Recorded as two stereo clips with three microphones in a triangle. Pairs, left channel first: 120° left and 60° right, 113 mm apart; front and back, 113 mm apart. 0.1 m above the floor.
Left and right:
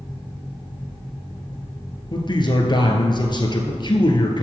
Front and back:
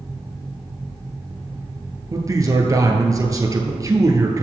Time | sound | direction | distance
2.1 | a man speaking | 135° left | 1.5 m